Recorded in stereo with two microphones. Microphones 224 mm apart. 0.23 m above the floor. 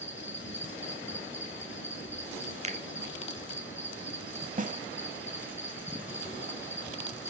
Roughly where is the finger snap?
Right.